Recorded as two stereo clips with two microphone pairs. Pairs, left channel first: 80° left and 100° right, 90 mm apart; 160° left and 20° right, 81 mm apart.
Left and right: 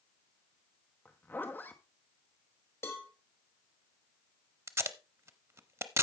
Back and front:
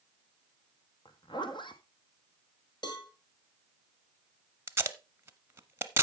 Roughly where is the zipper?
Behind left.